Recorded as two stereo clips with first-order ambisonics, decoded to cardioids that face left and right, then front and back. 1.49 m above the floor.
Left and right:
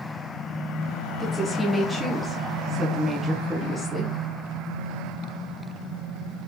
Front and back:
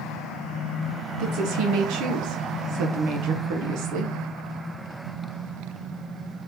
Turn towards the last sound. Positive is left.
turn(degrees=-175)